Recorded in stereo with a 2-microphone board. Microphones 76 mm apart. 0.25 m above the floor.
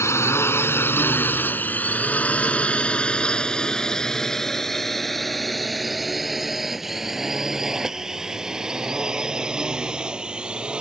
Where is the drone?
40° left (ahead or behind); by 10.8 s 15° right (ahead or behind).